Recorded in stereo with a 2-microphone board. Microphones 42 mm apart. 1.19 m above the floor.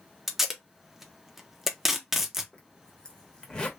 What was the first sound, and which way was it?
Tape being pulled, 5° right (ahead or behind).